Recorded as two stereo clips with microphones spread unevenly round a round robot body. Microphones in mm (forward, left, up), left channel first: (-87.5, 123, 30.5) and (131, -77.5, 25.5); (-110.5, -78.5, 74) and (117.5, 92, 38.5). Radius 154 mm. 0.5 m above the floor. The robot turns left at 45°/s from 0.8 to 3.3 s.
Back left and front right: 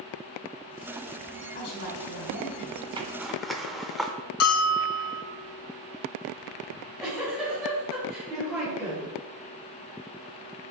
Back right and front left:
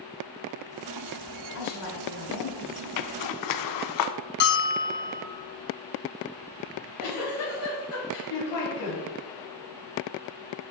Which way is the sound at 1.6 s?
165° right.